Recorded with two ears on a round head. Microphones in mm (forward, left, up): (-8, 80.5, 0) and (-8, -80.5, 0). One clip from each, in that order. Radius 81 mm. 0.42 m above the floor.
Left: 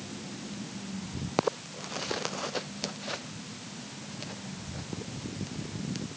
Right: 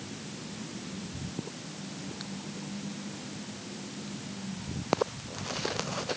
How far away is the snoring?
No snoring in this recording.